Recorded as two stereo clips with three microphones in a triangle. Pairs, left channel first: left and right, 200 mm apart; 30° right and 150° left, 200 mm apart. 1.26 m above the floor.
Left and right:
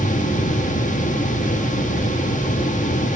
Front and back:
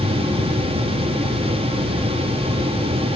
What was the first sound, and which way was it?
Only background noise.